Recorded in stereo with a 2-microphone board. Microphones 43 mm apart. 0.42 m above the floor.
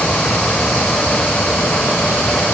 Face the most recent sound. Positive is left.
No sound to turn to.